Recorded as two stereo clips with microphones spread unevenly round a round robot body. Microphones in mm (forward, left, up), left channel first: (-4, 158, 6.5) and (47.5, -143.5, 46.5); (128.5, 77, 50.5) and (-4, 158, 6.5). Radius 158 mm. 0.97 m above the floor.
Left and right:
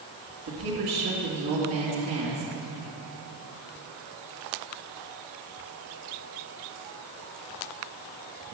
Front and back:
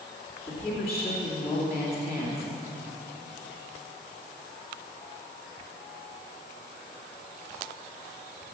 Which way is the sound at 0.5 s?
125° right.